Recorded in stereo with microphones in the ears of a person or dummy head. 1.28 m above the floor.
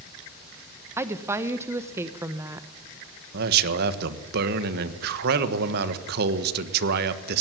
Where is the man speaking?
60° right (ahead or behind), 1.5 m.